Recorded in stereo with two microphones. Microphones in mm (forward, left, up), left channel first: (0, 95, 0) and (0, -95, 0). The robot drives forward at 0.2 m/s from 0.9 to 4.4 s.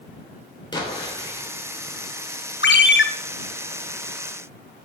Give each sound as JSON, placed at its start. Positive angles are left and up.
{"t": 0.7, "sound": "an explosion", "side_deg": 25, "distance_m": 3.0}
{"t": 2.6, "sound": "a ringtone", "side_deg": 70, "distance_m": 1.1}